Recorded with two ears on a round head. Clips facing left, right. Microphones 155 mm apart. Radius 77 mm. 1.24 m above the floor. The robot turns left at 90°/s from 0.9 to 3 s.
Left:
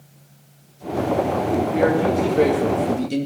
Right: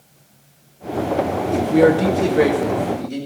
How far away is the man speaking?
About 1.9 m.